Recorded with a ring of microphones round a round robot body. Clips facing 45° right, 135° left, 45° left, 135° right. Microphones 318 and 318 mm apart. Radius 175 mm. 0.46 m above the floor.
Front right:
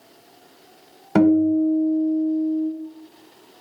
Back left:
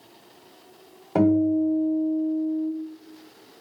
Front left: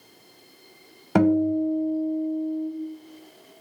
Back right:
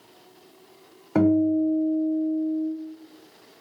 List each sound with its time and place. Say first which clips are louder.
1.1 s a guitar: front right 4 dB, back right 1 dB; 10° left, 1.0 m